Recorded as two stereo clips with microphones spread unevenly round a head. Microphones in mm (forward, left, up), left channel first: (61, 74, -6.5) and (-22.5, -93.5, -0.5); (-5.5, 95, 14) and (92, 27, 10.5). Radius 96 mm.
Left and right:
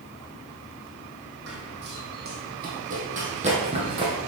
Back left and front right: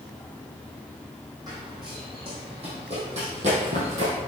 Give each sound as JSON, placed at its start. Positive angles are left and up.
{"t": 1.5, "sound": "running footsteps", "azimuth_deg": -105, "distance_m": 3.0}